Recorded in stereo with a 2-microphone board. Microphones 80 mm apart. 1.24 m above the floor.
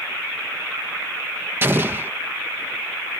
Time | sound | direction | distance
1.6 | an explosion | 30° right (ahead or behind) | ?